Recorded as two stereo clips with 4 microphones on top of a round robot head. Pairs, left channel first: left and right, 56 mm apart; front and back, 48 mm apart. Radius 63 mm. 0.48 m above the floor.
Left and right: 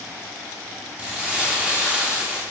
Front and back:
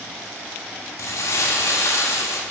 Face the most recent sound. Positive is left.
turn(degrees=-15)